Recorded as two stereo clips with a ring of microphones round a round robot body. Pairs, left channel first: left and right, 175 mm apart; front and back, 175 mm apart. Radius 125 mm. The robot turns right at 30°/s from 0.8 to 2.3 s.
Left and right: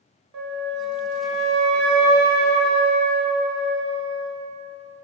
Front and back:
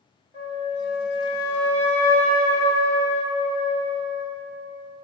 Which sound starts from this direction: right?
A flute, at 0.3 s.